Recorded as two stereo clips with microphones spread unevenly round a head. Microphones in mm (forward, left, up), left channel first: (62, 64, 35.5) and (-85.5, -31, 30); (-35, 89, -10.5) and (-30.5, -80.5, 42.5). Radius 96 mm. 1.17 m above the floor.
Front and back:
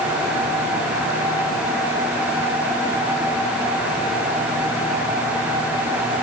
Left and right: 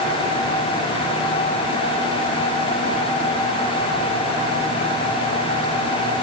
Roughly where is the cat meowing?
I don't hear a cat meowing.